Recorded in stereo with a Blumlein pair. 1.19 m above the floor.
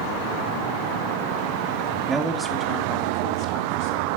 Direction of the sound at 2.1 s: 15° right.